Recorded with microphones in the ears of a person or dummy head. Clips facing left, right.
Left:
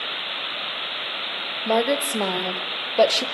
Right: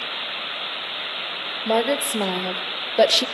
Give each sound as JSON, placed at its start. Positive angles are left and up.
{"t": 1.6, "sound": "a woman speaking", "side_deg": 5, "distance_m": 2.5}